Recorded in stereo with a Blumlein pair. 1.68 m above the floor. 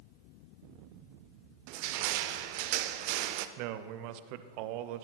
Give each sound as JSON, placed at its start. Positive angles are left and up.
{"t": 1.7, "sound": "crushing", "azimuth_deg": -45, "distance_m": 0.6}
{"t": 3.6, "sound": "a man speaking", "azimuth_deg": -45, "distance_m": 0.5}